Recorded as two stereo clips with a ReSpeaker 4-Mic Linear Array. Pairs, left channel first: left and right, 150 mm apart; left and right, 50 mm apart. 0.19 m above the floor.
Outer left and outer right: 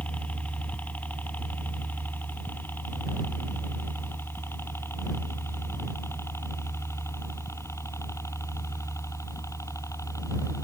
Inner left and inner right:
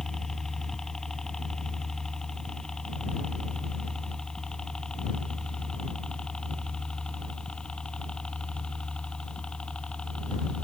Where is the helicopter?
10° left (ahead or behind); by 10.7 s 20° left (ahead or behind).